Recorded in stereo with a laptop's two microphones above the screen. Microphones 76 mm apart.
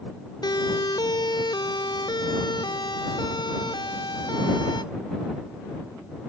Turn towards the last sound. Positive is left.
turn(degrees=85)